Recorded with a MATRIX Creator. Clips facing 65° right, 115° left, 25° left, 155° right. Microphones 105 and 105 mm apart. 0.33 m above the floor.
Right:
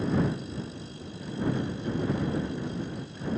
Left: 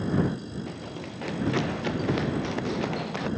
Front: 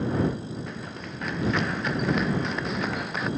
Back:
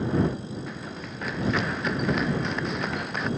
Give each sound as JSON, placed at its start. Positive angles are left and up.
{"t": 0.7, "sound": "running footsteps", "azimuth_deg": 115}